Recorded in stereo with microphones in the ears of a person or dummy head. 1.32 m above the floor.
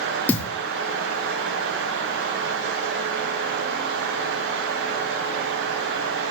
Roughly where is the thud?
Centre.